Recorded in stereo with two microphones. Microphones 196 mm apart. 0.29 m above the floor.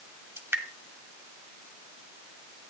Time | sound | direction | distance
0.4 | dripping | 15° right (ahead or behind) | 1.4 m